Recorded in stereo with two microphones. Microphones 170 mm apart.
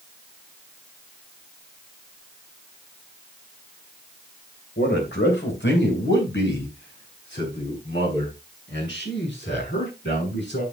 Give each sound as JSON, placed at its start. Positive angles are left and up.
{"t": 4.8, "sound": "a man speaking", "side_deg": 75, "distance_m": 3.0}